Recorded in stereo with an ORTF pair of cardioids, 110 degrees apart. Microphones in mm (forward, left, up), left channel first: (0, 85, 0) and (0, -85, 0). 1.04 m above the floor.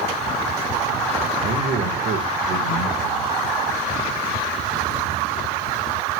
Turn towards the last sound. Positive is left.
turn(degrees=-65)